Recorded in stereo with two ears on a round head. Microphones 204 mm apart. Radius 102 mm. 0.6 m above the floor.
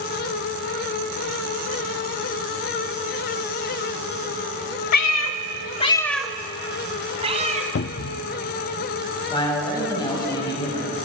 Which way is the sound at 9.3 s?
20° left (ahead or behind).